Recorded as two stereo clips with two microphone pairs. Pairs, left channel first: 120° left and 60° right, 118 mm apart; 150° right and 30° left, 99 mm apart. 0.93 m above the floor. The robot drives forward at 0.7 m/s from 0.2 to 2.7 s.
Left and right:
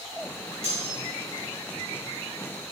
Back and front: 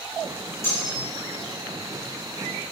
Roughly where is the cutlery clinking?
Behind left.